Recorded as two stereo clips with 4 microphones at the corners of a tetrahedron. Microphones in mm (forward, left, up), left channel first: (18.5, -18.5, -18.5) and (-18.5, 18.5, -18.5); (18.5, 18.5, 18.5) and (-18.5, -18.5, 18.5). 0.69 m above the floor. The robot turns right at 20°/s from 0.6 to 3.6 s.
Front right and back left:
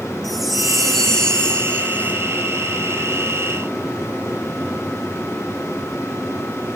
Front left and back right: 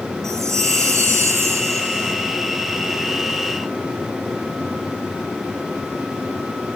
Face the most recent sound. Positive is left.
turn(degrees=-75)